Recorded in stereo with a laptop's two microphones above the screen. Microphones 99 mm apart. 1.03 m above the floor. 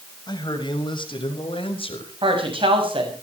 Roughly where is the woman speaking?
Right.